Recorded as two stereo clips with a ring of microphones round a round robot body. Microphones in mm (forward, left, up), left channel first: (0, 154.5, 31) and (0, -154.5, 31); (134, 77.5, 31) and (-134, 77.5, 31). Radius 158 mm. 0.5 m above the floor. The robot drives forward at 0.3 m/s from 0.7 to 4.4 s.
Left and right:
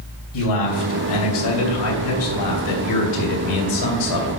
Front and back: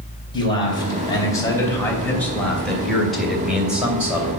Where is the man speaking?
75° left, 3 m; by 4.3 s 95° left, 3 m.